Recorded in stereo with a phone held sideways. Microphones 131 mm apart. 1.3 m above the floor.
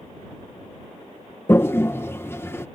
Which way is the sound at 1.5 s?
20° left (ahead or behind).